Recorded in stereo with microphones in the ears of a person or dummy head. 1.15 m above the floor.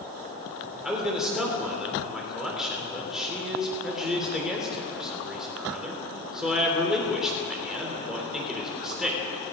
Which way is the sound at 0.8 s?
5° right (ahead or behind).